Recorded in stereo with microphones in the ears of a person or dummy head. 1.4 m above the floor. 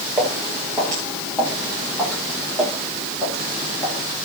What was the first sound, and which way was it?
Footsteps, centre (ahead or behind).